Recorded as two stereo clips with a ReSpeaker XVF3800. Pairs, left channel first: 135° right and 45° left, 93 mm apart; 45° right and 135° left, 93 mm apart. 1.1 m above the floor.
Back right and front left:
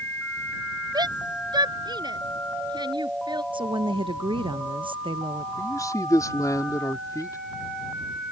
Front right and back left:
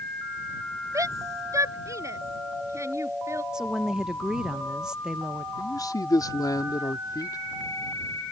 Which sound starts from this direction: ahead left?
A woman speaking, at 3.5 s.